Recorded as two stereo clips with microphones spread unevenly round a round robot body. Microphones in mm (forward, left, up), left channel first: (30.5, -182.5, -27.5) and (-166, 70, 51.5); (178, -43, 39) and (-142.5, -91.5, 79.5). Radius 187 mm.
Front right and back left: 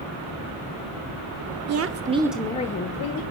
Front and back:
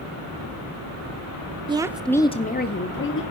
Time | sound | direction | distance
1.7 | a woman speaking | 115° left | 0.8 m